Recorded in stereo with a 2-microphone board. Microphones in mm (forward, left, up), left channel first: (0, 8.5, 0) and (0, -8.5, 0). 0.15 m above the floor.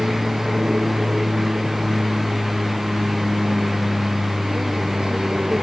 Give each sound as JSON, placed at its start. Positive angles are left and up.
{"t": 0.0, "sound": "an aircraft", "side_deg": -60}